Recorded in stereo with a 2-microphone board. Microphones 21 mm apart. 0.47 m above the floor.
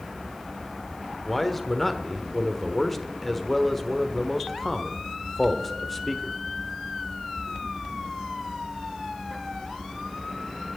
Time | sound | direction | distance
1.3 | a man speaking | 5° left (ahead or behind) | 1.2 m